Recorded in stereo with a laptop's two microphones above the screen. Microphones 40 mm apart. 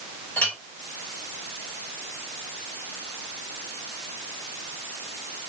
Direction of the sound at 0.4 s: 45° left (ahead or behind).